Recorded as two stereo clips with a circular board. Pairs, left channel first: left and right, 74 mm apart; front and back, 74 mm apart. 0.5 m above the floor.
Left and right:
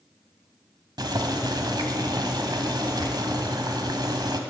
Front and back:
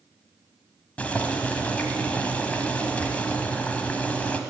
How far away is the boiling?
About 1.5 m.